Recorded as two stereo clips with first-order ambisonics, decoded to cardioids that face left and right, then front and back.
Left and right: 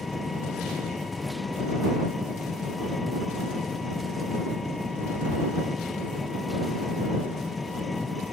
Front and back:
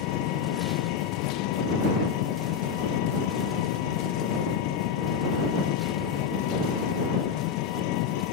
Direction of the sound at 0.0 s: 10° left.